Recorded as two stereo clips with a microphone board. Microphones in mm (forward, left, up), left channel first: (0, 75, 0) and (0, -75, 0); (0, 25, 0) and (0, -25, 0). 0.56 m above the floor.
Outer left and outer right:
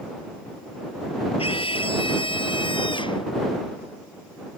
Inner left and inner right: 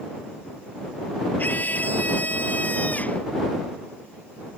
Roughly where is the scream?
Left.